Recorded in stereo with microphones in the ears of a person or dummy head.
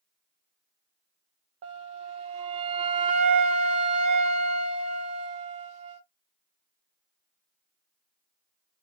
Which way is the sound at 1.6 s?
40° right (ahead or behind).